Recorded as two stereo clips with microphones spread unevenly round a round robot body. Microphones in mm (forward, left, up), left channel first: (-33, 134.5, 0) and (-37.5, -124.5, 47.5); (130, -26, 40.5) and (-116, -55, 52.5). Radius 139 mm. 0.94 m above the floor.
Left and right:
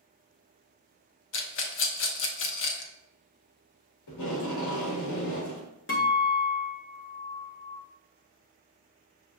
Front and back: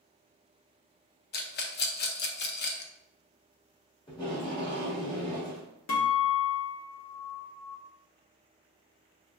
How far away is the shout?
No shout in this recording.